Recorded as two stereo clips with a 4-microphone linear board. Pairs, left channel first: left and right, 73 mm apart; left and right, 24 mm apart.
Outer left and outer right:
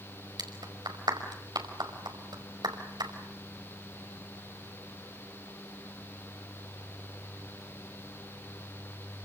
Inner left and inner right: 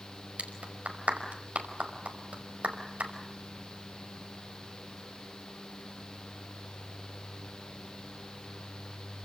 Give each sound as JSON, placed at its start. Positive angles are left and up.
{"t": 0.4, "sound": "a clap", "side_deg": -75, "distance_m": 5.0}